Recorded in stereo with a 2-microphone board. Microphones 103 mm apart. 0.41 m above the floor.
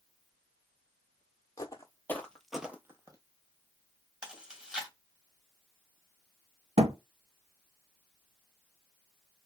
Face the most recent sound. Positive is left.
turn(degrees=-85)